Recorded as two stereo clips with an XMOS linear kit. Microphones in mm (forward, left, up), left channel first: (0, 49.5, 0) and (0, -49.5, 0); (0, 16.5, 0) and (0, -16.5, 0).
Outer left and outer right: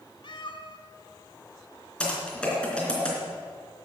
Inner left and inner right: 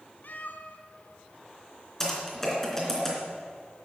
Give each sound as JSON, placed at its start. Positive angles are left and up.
{"t": 0.2, "sound": "a cat meowing", "side_deg": 55, "distance_m": 1.1}
{"t": 2.0, "sound": "typing on a keyboard", "side_deg": 10, "distance_m": 3.5}